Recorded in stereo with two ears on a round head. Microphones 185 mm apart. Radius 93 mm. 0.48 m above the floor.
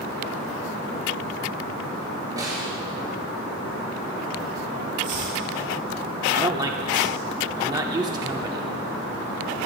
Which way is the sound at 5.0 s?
40° right (ahead or behind).